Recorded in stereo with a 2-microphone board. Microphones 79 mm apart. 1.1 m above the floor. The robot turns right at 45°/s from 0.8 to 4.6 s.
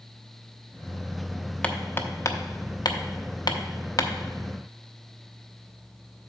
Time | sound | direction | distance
1.6 | hammering | 15° left (ahead or behind) | 0.6 m